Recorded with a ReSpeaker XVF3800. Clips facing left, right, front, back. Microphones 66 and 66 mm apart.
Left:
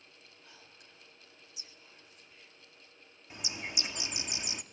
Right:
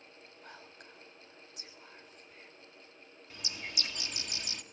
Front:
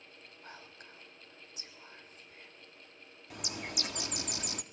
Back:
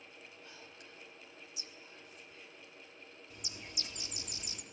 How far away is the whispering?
About 3.5 m.